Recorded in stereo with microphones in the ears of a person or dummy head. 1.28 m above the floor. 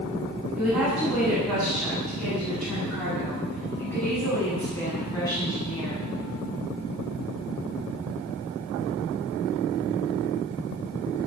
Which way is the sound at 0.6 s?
5° right (ahead or behind).